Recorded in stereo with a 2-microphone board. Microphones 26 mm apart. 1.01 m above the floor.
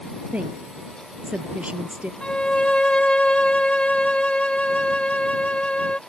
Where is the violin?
45° left (ahead or behind).